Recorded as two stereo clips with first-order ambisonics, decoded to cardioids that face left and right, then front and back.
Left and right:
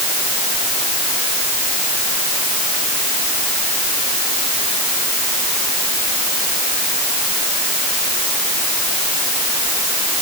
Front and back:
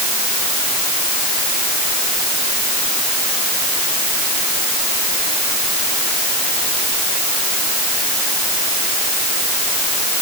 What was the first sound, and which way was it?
Only background noise.